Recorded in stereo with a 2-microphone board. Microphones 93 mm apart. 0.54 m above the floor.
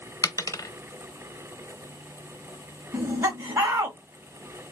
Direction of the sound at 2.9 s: 35° right (ahead or behind).